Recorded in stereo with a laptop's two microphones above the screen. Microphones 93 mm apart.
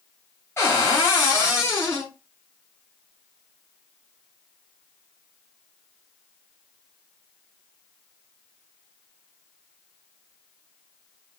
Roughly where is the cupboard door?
Left.